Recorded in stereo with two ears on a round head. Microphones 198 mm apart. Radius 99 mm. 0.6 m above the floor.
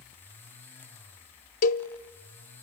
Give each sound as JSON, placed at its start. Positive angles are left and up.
{"t": 1.6, "sound": "a cowbell", "side_deg": 35, "distance_m": 0.6}